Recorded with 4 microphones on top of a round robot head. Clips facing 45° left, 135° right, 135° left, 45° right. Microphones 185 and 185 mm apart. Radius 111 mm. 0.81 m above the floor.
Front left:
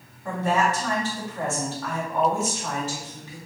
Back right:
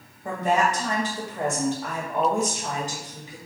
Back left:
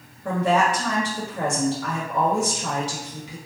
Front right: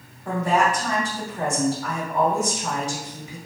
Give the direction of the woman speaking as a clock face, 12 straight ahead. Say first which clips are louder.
Back right 1 dB, back left 1 dB; 7 o'clock.